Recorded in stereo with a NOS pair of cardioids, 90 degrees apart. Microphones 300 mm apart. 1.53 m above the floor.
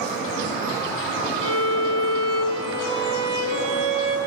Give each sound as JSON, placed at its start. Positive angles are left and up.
{"t": 1.4, "sound": "a violin", "azimuth_deg": -50, "distance_m": 4.5}